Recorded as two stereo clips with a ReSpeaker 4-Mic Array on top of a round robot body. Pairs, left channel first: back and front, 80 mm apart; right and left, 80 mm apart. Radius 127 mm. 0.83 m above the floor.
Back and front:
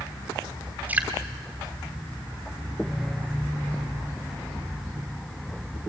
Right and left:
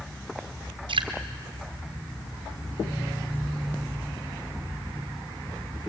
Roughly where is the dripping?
Left.